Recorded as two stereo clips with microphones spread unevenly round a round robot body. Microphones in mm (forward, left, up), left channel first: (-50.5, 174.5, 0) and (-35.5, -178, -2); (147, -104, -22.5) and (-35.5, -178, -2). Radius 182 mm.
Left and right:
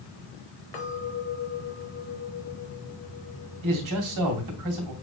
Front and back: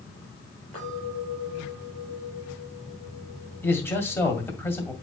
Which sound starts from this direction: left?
A clink, at 0.7 s.